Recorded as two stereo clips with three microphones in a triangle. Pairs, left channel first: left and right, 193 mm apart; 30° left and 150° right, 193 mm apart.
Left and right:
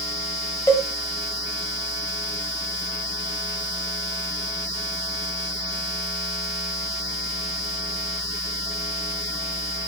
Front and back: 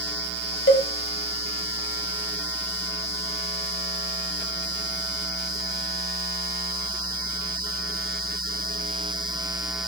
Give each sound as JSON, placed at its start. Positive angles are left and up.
{"t": 0.7, "sound": "a cowbell", "azimuth_deg": 15, "distance_m": 1.8}